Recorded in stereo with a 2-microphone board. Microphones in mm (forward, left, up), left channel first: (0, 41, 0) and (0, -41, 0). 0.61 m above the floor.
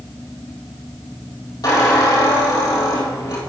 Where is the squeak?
55° left (ahead or behind), 2.5 m.